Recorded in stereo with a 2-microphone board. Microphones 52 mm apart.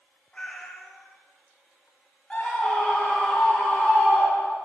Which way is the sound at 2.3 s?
10° left (ahead or behind).